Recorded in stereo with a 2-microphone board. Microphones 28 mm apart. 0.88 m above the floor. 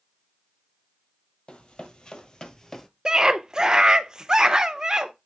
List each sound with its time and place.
1.5 s running footsteps: 40° left (ahead or behind), 1.5 m; by 2.9 s 20° left (ahead or behind), 1.0 m
3.0 s a scream: 30° right (ahead or behind), 0.8 m